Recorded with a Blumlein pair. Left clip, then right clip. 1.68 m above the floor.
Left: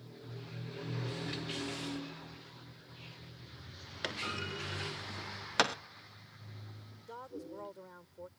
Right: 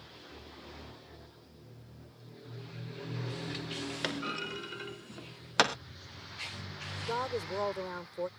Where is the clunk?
10° right.